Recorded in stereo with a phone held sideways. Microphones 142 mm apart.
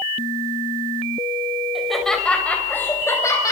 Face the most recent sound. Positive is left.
turn(degrees=25)  # may be behind; listen again after turning